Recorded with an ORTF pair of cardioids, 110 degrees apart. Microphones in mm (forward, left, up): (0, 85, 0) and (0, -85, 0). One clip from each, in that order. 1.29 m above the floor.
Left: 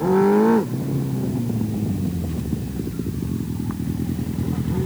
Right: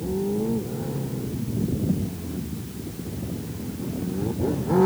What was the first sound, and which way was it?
Only background noise.